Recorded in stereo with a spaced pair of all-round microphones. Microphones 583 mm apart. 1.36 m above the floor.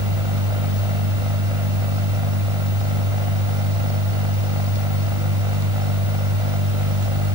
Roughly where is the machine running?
Right.